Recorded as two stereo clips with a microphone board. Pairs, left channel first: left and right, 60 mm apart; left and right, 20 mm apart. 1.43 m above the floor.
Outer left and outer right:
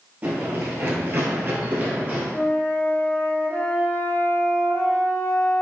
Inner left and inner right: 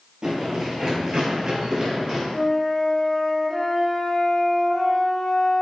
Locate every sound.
0.2 s running footsteps: 30° right (ahead or behind), 1.8 m
2.3 s a flute: 30° left (ahead or behind), 0.7 m